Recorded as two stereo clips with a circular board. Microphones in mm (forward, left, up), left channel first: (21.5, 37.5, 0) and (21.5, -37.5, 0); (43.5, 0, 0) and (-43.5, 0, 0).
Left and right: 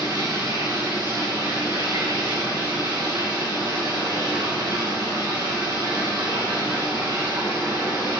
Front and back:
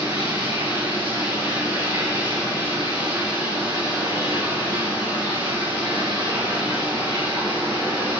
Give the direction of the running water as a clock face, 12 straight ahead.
4 o'clock.